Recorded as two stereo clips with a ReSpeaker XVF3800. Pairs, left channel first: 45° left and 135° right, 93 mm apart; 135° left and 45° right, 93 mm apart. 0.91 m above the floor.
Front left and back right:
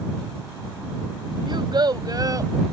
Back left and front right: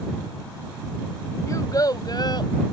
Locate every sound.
1.5 s a child speaking: 170° right; by 2.5 s 170° left